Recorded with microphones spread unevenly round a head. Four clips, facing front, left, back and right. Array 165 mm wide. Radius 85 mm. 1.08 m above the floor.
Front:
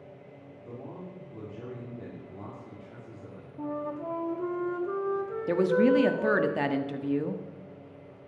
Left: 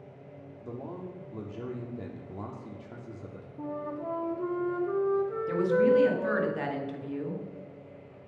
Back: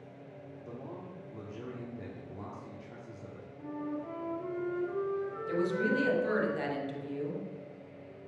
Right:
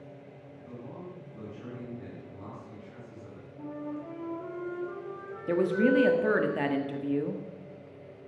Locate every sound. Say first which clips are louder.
0.6 s a man speaking: left 4 dB, front 3 dB; 95° left, 2.5 m
3.6 s a flute: left 2 dB, front 4 dB; 35° left, 1.5 m
5.5 s a woman speaking: even, front 9 dB; 30° right, 1.6 m